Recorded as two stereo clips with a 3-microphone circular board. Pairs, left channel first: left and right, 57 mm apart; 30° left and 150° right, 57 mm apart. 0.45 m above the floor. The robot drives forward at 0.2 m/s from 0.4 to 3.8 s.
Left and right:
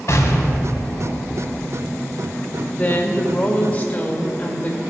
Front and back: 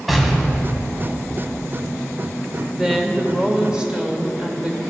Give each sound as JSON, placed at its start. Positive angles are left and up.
{"t": 0.1, "sound": "an explosion", "azimuth_deg": 120, "distance_m": 1.6}
{"t": 2.7, "sound": "a woman speaking", "azimuth_deg": 130, "distance_m": 1.3}